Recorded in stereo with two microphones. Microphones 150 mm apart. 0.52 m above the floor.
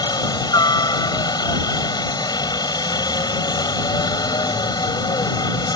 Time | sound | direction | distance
0.0 | a helicopter | 25° left (ahead or behind) | ?